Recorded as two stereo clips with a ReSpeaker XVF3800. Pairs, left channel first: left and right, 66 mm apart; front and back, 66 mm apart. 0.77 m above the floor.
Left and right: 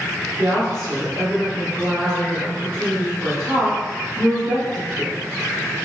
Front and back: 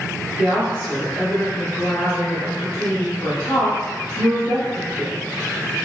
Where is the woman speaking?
55° right, 0.9 m.